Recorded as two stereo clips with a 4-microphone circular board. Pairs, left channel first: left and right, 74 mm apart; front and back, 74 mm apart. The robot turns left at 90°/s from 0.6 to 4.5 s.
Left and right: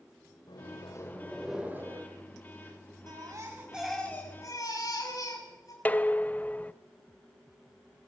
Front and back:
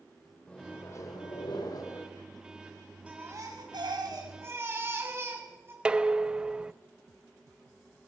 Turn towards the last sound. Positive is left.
turn(degrees=120)